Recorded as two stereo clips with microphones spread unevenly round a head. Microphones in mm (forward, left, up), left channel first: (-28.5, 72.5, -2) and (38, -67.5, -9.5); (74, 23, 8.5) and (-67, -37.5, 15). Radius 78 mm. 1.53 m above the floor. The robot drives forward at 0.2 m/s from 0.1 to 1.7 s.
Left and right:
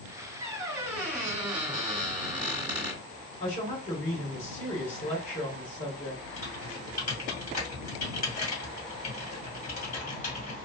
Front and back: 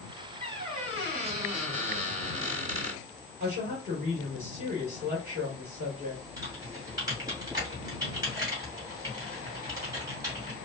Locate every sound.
0.4 s a squeak: 140° right, 1.7 m; by 3.0 s 145° right, 1.8 m
3.4 s a woman speaking: 155° left, 1.8 m
6.4 s typing on a keyboard: 140° left, 2.5 m